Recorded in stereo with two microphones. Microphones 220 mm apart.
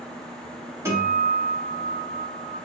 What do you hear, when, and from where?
0.8 s a guitar: 10° right (ahead or behind), 0.9 m